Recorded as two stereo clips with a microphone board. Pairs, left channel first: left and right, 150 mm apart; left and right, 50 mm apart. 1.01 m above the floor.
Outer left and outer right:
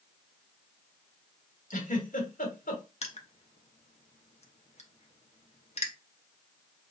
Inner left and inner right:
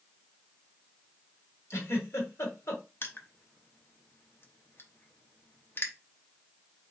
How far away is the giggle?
About 1.5 m.